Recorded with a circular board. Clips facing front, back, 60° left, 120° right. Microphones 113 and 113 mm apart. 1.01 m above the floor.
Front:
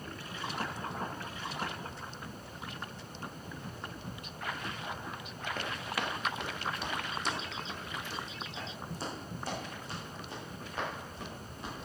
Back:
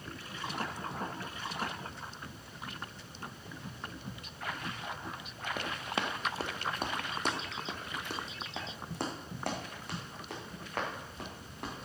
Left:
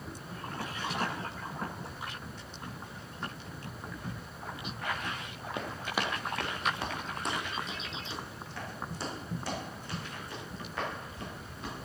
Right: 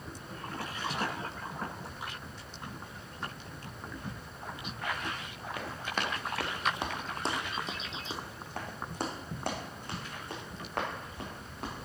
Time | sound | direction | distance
5.6 | running footsteps | 110° left | 1.2 m